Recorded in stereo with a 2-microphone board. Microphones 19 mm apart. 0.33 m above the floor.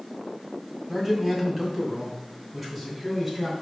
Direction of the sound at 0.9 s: 5° right (ahead or behind).